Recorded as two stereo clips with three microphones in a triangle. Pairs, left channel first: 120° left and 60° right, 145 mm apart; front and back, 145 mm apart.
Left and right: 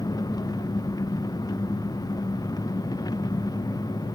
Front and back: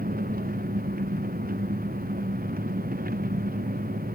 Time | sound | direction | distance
0.0 | an engine running | 175° right | ?